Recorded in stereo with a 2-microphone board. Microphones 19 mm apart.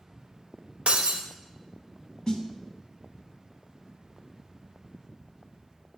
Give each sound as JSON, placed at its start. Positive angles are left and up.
{"t": 0.9, "sound": "breaking glass", "side_deg": -60, "distance_m": 0.8}
{"t": 2.3, "sound": "a snare drum", "side_deg": 35, "distance_m": 0.8}